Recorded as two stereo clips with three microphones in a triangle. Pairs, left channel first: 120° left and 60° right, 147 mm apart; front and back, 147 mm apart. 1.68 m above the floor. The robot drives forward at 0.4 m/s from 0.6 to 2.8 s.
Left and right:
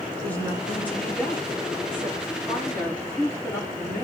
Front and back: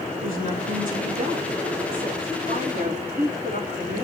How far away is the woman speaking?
About 5 m.